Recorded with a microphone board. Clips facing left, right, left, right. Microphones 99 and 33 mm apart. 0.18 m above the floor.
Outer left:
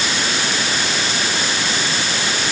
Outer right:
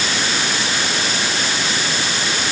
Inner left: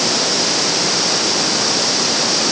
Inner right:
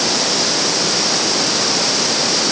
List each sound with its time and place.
Only background noise.